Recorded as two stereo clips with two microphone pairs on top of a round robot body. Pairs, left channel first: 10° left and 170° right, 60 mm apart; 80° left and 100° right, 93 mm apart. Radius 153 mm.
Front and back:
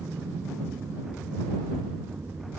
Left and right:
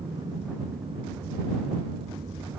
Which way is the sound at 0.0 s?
120° right.